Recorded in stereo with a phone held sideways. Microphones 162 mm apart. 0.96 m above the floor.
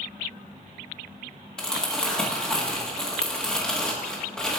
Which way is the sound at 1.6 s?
5° left (ahead or behind).